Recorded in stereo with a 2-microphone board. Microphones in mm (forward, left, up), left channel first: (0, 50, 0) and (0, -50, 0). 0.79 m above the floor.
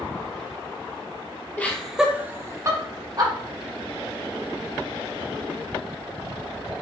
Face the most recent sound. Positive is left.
turn(degrees=-40)  # may be behind; listen again after turning